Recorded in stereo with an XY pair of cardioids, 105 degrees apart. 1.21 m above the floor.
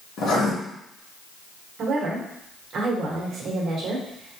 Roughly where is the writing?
Ahead left.